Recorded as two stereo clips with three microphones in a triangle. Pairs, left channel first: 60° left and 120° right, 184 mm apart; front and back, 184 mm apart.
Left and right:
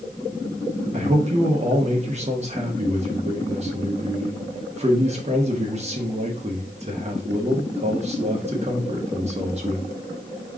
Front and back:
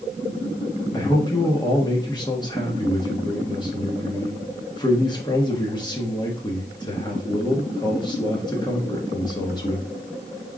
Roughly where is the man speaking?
Ahead right.